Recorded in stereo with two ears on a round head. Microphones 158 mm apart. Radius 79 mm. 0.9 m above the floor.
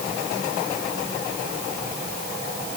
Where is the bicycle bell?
I don't hear a bicycle bell.